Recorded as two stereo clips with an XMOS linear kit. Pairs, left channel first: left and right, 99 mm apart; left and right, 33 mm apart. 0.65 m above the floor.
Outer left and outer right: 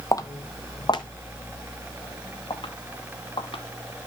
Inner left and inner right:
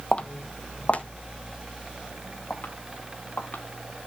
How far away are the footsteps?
About 0.9 m.